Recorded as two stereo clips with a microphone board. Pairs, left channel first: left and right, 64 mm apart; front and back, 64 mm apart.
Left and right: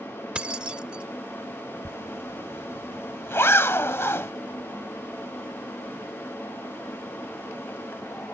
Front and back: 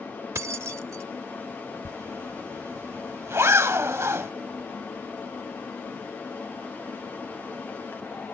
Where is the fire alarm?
No fire alarm in this recording.